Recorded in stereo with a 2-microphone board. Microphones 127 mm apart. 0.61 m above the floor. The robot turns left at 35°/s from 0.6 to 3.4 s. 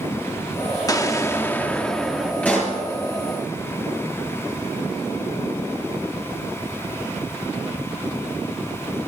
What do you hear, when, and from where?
0.9 s an explosion: 50° left, 0.9 m; by 2.3 s straight ahead, 0.9 m
2.4 s a pop: 10° left (ahead or behind), 4.5 m; by 2.8 s 20° left (ahead or behind), 4.5 m